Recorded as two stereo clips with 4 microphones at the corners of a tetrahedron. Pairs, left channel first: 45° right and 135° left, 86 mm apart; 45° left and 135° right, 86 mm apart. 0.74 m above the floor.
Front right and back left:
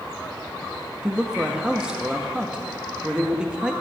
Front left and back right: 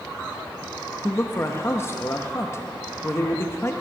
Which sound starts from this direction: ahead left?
A man speaking, at 1.0 s.